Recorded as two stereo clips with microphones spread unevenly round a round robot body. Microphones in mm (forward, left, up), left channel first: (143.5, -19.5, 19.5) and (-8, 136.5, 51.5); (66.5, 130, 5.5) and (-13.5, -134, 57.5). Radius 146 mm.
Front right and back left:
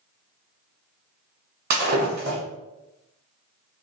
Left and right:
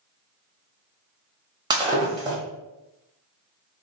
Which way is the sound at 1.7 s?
175° right.